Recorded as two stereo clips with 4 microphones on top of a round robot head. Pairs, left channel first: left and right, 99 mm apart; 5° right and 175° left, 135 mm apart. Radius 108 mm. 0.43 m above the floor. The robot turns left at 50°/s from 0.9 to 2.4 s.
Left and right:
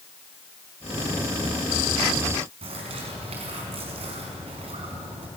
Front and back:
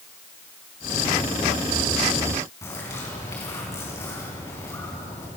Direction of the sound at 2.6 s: 75° right.